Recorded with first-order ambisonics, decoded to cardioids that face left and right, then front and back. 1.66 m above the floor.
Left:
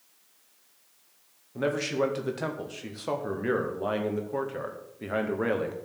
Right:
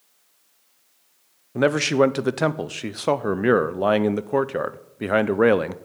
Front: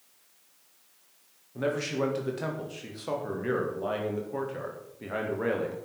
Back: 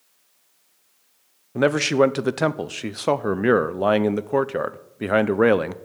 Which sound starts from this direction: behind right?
A man speaking, at 1.6 s.